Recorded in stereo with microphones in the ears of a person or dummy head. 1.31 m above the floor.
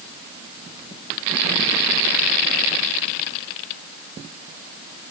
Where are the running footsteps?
No running footsteps in this recording.